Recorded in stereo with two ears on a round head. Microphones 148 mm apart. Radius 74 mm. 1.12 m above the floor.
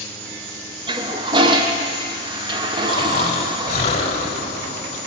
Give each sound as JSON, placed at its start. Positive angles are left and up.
{"t": 0.9, "sound": "a toilet flushing", "side_deg": -30, "distance_m": 0.7}
{"t": 2.9, "sound": "snoring", "side_deg": 40, "distance_m": 1.1}